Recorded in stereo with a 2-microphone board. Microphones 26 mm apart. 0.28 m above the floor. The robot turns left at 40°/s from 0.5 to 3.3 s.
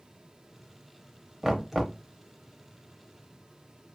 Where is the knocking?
10° right (ahead or behind), 0.6 m; by 2.0 s centre (ahead or behind), 0.6 m.